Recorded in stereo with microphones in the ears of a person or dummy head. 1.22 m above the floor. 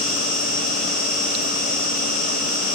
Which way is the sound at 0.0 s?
5° left (ahead or behind).